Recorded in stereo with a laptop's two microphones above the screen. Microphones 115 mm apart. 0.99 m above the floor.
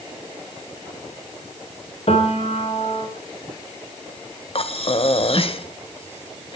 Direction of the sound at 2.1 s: 60° left (ahead or behind).